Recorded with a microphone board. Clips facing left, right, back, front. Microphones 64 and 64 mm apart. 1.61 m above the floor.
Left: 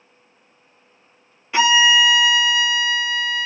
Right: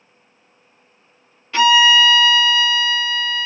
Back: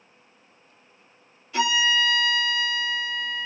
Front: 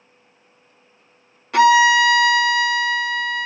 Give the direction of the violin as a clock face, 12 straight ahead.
11 o'clock.